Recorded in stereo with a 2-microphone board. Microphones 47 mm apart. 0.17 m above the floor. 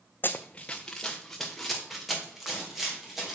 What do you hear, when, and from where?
0.2 s running footsteps: 50° left (ahead or behind), 0.6 m; by 3.4 s centre (ahead or behind), 3.5 m